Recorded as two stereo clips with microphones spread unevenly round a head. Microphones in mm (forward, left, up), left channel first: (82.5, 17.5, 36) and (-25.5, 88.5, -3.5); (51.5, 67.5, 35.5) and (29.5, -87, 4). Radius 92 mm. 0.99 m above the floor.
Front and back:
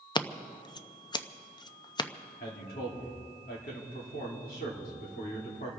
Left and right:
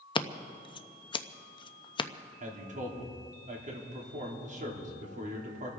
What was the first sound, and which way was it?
Scissors, 25° left.